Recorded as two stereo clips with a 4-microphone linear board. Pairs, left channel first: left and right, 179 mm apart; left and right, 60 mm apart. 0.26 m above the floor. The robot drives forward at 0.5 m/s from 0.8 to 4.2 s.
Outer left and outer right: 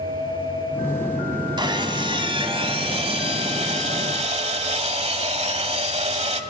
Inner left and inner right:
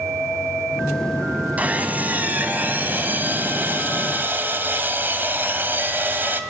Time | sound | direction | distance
1.6 | sawing | 25° right (ahead or behind) | 1.8 m